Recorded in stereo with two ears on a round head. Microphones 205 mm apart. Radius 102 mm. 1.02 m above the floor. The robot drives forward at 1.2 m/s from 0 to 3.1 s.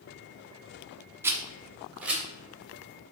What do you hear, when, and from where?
1.2 s a rattle: 10° right (ahead or behind), 0.9 m; by 2.2 s 5° right (ahead or behind), 2.0 m